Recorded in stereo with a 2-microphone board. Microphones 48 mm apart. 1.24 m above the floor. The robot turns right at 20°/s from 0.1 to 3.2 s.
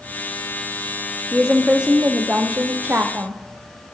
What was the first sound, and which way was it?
A woman speaking, 170° right.